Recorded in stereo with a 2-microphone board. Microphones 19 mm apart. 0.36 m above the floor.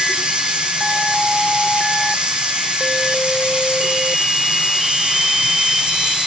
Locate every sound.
0.0 s running water: 70° right (ahead or behind), 9 m